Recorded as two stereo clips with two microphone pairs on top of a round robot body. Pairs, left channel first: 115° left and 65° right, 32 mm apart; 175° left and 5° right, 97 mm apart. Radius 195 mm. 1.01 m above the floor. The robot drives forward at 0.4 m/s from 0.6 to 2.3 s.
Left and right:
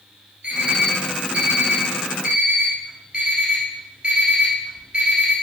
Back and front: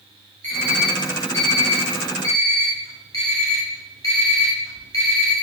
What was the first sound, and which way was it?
An alarm clock, 115° right.